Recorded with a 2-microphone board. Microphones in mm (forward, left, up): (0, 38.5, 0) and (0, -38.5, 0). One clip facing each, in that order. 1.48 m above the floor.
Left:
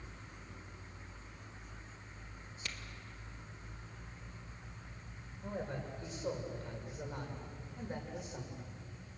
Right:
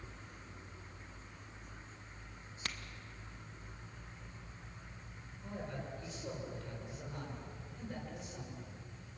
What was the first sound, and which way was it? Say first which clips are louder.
A crack: right 3 dB; 50° right (ahead or behind).